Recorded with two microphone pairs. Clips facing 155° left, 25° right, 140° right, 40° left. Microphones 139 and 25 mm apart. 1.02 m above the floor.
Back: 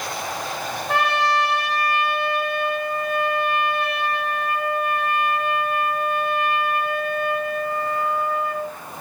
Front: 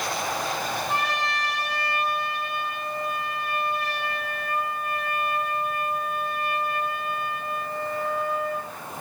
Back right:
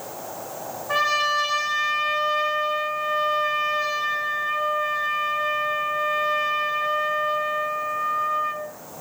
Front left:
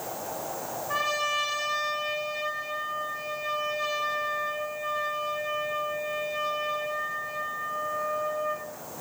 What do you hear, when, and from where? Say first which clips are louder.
0.9 s a trumpet: back 12 dB, back right 7 dB; 155° left, 8.5 m